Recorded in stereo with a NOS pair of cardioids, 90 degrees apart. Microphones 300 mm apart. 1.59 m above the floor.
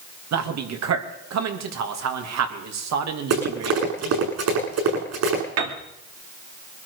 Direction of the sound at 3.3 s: 60° right.